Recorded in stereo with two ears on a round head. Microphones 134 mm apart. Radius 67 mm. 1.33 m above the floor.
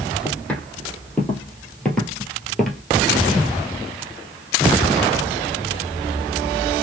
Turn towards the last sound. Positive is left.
turn(degrees=0)  # may be behind; listen again after turning